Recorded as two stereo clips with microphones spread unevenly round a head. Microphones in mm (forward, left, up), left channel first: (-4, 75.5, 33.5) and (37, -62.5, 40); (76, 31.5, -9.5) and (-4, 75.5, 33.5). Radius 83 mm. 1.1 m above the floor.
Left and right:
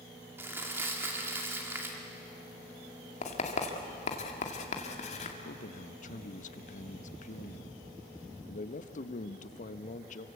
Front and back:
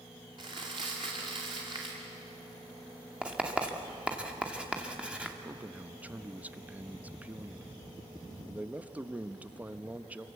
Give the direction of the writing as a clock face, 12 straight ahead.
10 o'clock.